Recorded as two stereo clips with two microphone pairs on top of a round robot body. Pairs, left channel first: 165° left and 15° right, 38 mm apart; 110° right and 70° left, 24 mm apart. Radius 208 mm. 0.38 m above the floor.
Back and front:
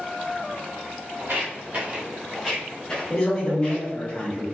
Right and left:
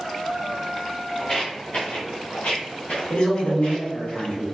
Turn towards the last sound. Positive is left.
turn(degrees=-125)